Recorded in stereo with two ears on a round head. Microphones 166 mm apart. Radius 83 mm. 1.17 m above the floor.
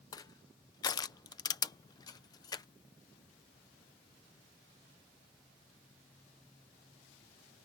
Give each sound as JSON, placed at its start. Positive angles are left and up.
{"t": 0.1, "sound": "crushing", "side_deg": 20}